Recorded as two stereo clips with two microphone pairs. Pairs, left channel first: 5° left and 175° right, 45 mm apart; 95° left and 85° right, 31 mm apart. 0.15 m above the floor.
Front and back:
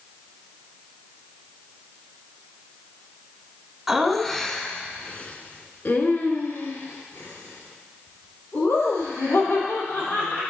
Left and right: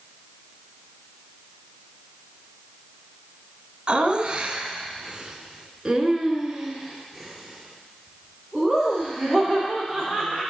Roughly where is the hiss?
I don't hear a hiss.